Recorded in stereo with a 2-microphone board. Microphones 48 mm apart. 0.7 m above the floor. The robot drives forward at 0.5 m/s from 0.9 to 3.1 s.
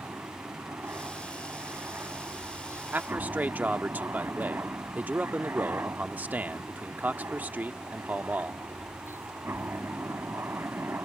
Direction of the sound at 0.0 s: 50° right (ahead or behind).